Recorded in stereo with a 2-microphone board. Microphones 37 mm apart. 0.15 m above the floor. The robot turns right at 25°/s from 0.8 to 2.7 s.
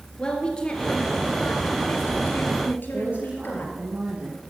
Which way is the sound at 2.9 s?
30° right (ahead or behind).